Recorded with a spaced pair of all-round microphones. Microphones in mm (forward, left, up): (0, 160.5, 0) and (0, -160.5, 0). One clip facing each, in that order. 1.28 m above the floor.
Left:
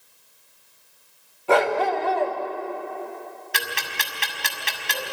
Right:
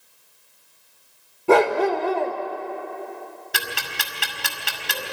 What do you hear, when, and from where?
1.5 s a dog barking: 55° right (ahead or behind), 1.5 m
3.5 s ticking: 50° right (ahead or behind), 2 m